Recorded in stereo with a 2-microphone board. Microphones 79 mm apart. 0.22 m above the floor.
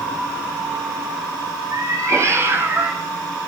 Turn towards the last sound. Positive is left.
turn(degrees=-15)  # may be behind; listen again after turning